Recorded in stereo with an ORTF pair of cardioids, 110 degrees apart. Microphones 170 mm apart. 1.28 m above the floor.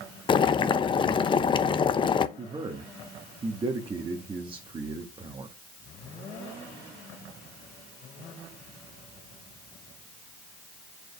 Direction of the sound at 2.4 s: 30° right.